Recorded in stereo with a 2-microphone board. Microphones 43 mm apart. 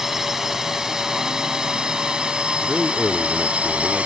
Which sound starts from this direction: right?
A man speaking, at 2.6 s.